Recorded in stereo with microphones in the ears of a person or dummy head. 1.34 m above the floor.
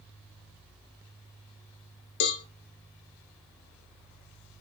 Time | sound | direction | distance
2.2 | a cowbell | 70° left (ahead or behind) | 1.2 m